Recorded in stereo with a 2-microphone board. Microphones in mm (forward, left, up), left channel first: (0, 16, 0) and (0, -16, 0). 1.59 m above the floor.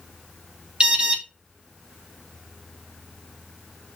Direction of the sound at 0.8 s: 30° right (ahead or behind).